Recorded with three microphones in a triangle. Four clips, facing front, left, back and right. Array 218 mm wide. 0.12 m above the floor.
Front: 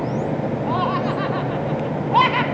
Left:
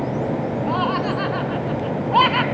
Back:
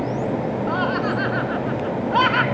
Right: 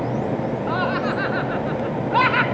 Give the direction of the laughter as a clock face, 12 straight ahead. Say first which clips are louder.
Left 1 dB, front 2 dB; 11 o'clock.